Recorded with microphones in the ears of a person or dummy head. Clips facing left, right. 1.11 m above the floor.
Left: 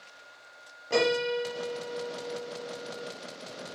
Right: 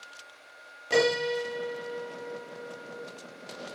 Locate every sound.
0.9 s a piano: 25° right (ahead or behind), 1.0 m